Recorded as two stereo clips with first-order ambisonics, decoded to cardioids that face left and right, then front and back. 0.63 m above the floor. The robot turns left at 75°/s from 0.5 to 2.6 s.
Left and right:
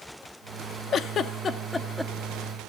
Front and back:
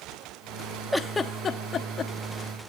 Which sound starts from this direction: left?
A giggle, at 0.9 s.